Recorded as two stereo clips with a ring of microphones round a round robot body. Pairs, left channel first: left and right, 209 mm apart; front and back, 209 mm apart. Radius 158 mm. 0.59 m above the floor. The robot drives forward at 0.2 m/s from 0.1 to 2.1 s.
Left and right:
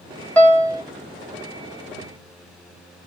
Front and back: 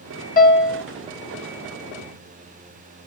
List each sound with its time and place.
0.4 s a piano: 10° left, 1.0 m; by 0.8 s 15° left, 1.0 m